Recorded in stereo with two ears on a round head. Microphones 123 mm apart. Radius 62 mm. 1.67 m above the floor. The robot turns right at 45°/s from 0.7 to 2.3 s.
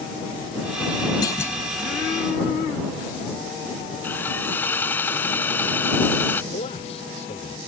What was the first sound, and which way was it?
A clunk, 30° left (ahead or behind).